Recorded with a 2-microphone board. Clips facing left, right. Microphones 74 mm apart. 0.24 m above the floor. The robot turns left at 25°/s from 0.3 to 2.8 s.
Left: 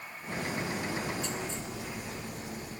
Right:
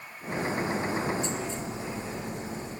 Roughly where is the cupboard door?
I don't hear a cupboard door.